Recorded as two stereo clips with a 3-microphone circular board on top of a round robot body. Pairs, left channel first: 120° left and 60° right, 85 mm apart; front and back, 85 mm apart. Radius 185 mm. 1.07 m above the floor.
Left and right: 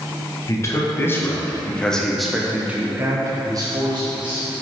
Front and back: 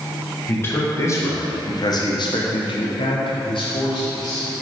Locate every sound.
0.5 s a man speaking: 65° left, 1.5 m; by 4.5 s 35° right, 1.3 m